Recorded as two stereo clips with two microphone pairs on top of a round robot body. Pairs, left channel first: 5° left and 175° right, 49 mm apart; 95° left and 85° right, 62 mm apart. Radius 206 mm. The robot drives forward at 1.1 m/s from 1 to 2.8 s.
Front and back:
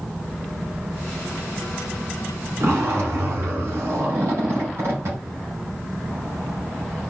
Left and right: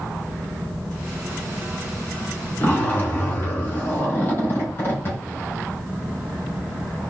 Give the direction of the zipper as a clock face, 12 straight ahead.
7 o'clock.